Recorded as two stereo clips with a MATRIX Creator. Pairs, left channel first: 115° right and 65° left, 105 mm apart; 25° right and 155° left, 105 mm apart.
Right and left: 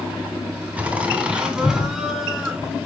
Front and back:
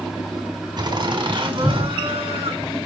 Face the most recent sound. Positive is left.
turn(degrees=155)